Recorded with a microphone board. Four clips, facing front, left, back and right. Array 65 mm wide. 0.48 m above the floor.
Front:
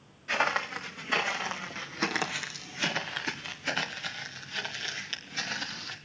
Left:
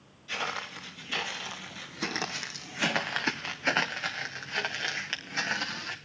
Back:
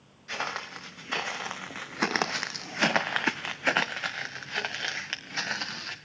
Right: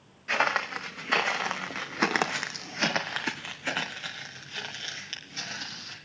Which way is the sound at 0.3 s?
75° right.